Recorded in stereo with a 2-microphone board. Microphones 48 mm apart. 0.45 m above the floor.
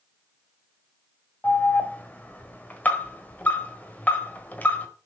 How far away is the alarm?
About 1.4 m.